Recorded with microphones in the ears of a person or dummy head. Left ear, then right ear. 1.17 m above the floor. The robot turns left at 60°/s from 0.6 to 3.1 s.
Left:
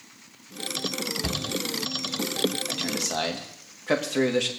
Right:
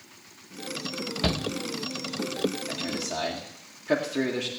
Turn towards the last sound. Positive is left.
turn(degrees=45)  # may be behind; listen again after turning